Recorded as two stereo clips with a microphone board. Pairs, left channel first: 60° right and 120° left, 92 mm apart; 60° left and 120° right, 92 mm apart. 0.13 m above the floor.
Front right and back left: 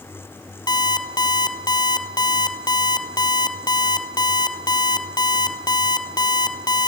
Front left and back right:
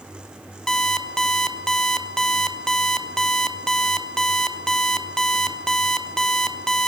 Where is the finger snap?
I don't hear a finger snap.